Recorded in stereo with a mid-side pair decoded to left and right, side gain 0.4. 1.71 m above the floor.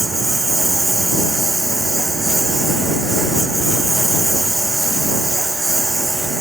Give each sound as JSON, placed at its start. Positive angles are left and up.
{"t": 0.0, "sound": "a lawn mower", "azimuth_deg": -15}